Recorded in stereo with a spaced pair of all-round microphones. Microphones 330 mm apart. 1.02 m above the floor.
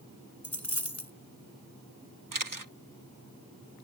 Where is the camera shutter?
70° right (ahead or behind).